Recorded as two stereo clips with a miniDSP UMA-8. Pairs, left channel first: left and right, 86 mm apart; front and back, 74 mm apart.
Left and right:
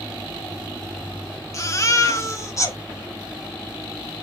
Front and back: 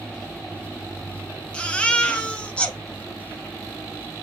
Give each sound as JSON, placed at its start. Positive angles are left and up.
{"t": 1.5, "sound": "a baby crying", "azimuth_deg": 65, "distance_m": 0.8}